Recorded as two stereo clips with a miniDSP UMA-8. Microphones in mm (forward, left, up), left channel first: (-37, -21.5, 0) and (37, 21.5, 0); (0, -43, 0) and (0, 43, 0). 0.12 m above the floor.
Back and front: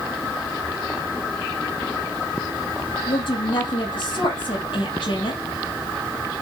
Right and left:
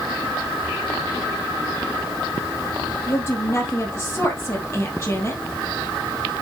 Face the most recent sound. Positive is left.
turn(degrees=-145)